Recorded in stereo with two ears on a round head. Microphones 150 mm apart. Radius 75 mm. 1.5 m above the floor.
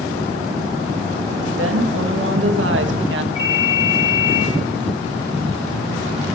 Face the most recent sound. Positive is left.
turn(degrees=25)  # may be behind; listen again after turning